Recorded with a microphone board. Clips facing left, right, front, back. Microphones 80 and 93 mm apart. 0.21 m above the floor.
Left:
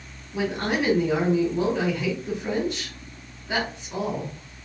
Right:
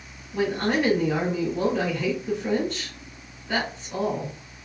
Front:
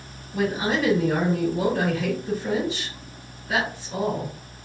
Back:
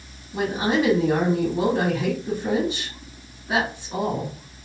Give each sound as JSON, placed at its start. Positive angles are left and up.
{"t": 0.3, "sound": "a woman speaking", "azimuth_deg": 145, "distance_m": 1.7}